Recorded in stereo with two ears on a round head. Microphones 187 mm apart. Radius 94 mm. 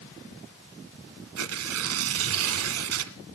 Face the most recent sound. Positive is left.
turn(degrees=-80)